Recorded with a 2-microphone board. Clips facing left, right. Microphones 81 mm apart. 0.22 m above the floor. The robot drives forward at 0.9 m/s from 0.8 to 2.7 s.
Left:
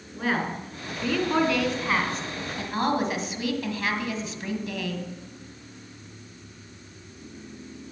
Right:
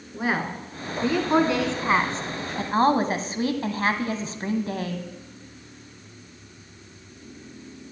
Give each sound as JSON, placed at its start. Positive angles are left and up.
{"t": 0.1, "sound": "a woman speaking", "side_deg": -20, "distance_m": 2.5}